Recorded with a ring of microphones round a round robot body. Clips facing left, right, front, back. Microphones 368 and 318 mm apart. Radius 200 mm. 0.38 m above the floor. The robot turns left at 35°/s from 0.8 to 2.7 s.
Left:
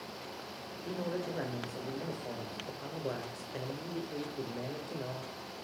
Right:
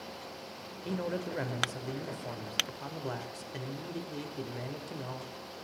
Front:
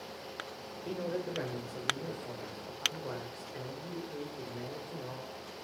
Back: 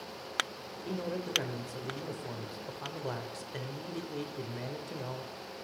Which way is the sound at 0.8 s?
95° right.